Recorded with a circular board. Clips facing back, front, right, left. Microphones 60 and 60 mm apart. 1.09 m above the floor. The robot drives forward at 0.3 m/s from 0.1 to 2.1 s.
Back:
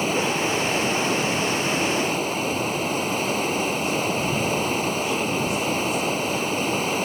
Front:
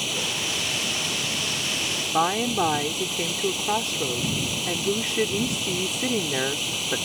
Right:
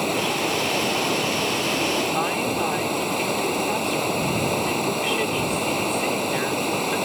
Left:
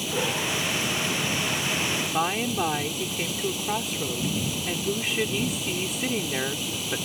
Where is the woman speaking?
Straight ahead.